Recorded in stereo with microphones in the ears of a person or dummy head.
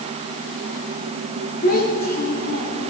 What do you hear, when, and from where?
1.6 s a child speaking: 40° left (ahead or behind), 1.9 m